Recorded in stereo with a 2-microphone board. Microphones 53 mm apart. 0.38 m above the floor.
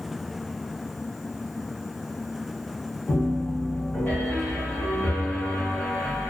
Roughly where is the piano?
Left.